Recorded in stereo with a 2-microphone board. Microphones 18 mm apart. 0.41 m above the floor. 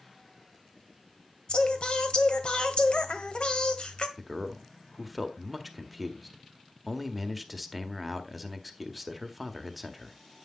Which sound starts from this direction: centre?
A man speaking, at 4.2 s.